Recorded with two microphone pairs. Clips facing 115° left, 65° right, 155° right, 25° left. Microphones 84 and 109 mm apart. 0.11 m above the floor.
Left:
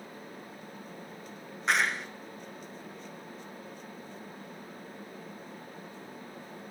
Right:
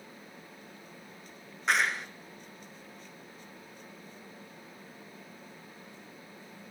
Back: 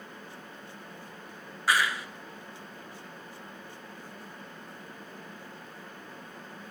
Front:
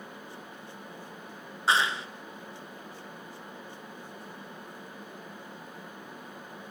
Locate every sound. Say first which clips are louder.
1.7 s a clap: even, front 1 dB; 20° left, 1.1 m